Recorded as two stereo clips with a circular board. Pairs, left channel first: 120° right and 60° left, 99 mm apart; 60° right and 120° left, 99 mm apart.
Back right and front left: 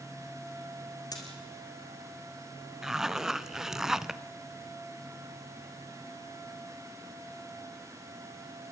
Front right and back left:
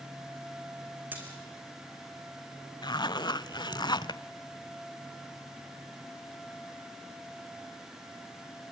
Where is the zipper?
25° right, 0.6 m.